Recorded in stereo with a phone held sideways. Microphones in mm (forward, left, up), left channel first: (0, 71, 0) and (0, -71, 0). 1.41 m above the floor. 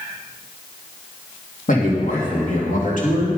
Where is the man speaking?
65° left (ahead or behind), 2.5 m.